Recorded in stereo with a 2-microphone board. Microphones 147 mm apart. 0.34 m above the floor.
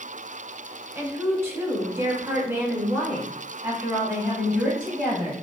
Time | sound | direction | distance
0.9 | a woman speaking | 15° right (ahead or behind) | 1.2 m